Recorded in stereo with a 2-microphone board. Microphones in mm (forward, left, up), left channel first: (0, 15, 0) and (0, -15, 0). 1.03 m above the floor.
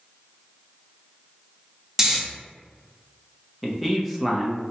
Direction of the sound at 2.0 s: 20° right (ahead or behind).